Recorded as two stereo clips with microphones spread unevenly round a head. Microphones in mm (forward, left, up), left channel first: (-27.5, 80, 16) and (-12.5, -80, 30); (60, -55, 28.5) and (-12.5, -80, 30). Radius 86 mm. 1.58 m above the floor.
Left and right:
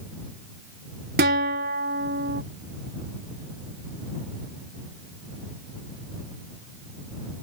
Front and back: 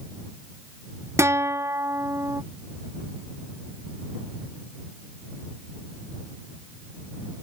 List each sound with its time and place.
1.2 s a guitar: 110° right